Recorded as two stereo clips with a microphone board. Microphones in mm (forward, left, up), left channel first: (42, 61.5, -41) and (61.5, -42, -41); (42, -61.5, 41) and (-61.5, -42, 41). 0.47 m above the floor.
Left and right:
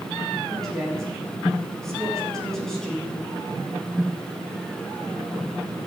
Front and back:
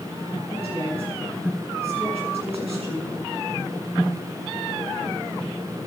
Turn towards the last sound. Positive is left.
turn(degrees=-175)